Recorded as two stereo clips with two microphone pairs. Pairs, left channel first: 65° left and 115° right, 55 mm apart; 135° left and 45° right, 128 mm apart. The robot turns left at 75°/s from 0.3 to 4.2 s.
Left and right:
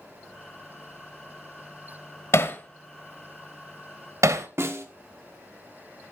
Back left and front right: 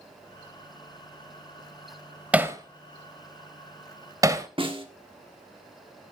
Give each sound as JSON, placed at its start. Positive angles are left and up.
{"t": 2.3, "sound": "hammering", "azimuth_deg": 35, "distance_m": 1.1}
{"t": 4.6, "sound": "a snare drum", "azimuth_deg": -85, "distance_m": 1.4}